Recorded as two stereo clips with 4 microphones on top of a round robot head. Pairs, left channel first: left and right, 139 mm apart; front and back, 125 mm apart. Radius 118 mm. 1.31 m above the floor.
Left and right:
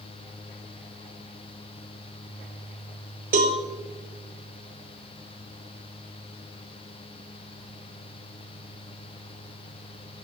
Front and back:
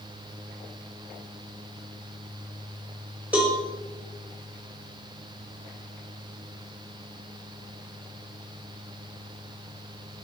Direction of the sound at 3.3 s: 100° right.